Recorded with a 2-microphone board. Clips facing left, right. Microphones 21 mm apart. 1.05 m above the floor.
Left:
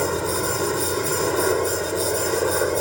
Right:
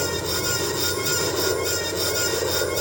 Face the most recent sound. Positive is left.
turn(degrees=20)  # may be behind; listen again after turning